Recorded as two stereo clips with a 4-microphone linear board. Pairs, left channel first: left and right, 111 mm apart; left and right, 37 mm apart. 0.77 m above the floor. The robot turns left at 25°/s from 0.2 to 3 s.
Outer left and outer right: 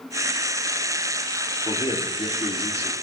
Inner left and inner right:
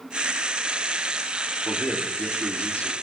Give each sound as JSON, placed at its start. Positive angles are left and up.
{"t": 1.6, "sound": "a man speaking", "azimuth_deg": 105, "distance_m": 2.0}